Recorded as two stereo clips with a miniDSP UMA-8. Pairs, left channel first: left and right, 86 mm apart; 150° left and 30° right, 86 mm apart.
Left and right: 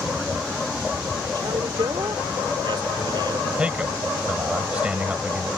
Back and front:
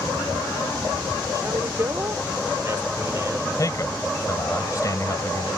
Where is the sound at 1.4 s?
80° right.